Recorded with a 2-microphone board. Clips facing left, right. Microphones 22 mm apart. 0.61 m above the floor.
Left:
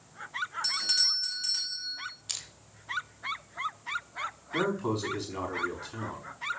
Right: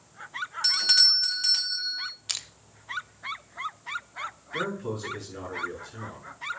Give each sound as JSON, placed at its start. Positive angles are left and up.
{"t": 0.6, "sound": "a doorbell", "side_deg": -30, "distance_m": 1.3}
{"t": 2.3, "sound": "crushing", "side_deg": -30, "distance_m": 0.9}
{"t": 4.5, "sound": "a man speaking", "side_deg": 70, "distance_m": 5.0}